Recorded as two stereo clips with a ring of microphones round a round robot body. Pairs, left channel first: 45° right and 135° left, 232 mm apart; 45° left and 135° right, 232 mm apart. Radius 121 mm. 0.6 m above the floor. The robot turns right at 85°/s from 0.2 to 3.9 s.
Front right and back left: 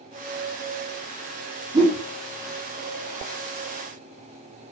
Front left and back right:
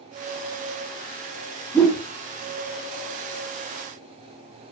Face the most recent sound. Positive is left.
turn(degrees=-60)